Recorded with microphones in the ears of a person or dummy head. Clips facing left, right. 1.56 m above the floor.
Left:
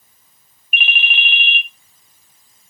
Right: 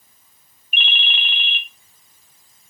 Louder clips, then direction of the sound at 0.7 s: Left 4 dB; 10° left (ahead or behind).